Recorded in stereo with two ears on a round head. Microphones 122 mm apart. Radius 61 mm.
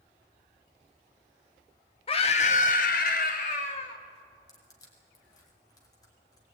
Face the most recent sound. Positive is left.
turn(degrees=30)  # may be behind; listen again after turning